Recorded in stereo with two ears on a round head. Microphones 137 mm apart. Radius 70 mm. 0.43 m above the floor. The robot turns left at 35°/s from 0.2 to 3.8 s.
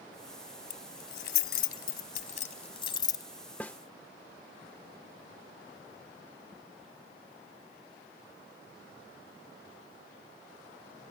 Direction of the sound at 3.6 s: 10° left (ahead or behind).